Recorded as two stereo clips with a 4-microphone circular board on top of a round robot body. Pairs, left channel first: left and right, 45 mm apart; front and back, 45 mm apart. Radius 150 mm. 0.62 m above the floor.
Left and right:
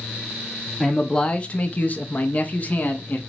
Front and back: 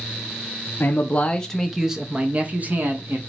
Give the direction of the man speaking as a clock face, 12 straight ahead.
11 o'clock.